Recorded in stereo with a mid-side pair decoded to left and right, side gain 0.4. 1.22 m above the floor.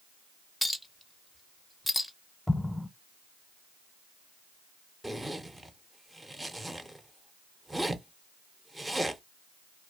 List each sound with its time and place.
0.6 s a clink: 10° left, 0.6 m
2.5 s an explosion: 5° left, 0.7 m
5.0 s a zipper: 15° right, 0.6 m